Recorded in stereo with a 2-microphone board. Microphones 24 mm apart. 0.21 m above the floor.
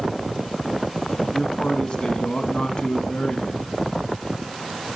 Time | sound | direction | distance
1.3 | a man speaking | 45° left (ahead or behind) | 1.3 m